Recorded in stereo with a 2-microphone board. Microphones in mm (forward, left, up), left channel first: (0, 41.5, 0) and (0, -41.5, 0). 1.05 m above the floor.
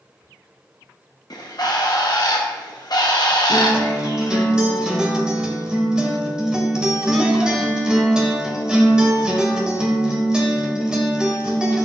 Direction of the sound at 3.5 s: 10° right (ahead or behind).